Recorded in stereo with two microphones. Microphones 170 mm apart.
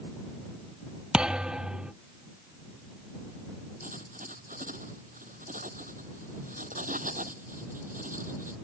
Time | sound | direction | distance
1.1 | a thud | 5° right (ahead or behind) | ?
3.8 | writing | 50° right (ahead or behind) | ?